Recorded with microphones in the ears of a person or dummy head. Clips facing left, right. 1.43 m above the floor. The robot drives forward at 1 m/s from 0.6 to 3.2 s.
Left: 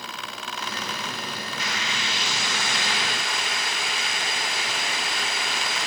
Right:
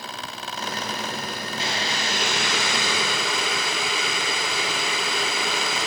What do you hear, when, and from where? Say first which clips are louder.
1.6 s boiling: right 5 dB; 30° right (ahead or behind), 1.5 m; by 5.9 s 55° right (ahead or behind), 0.9 m